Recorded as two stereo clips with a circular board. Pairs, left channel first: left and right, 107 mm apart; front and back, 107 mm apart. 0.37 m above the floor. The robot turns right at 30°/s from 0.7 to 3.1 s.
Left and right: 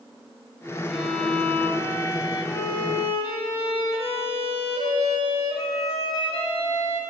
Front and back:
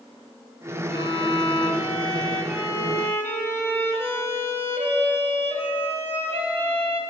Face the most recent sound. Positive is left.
turn(degrees=65)